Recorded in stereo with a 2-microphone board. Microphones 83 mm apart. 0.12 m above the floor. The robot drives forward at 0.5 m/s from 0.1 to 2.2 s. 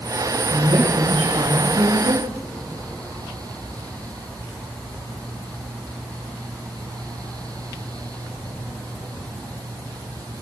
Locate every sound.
0.5 s a woman speaking: 75° right (ahead or behind), 9.5 m